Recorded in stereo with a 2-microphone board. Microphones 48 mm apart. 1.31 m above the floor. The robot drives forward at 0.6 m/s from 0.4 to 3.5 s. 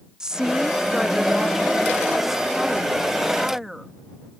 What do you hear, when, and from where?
0.2 s a woman speaking: 15° right (ahead or behind); by 3.9 s 5° right (ahead or behind)